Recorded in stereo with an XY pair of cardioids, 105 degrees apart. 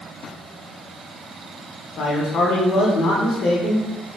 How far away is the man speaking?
About 0.7 m.